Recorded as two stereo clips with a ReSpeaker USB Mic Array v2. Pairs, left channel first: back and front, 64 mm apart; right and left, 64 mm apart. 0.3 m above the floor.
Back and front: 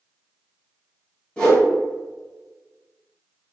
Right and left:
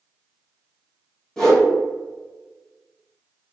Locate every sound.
1.4 s a whoosh: 150° right, 1.1 m